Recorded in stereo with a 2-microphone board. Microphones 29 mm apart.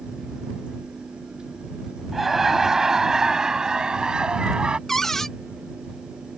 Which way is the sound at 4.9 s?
10° left (ahead or behind).